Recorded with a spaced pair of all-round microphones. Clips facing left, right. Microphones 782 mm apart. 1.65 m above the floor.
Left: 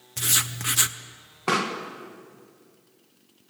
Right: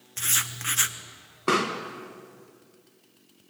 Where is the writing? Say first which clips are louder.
Left 6 dB; 65° left (ahead or behind), 1.1 m.